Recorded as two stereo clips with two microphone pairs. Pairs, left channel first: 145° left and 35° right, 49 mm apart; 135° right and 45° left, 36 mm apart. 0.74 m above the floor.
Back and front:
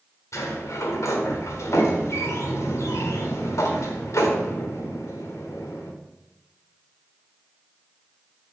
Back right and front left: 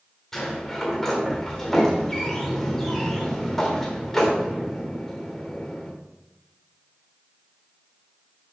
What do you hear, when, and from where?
0.3 s a sliding door: 145° left, 1.3 m